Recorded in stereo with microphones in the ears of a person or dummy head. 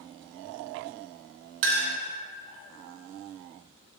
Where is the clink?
60° right (ahead or behind), 0.8 m.